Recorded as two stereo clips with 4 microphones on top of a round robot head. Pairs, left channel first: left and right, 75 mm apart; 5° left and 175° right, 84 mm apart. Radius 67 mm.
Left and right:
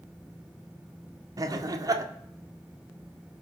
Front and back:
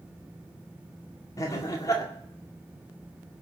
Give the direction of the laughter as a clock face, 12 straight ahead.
2 o'clock.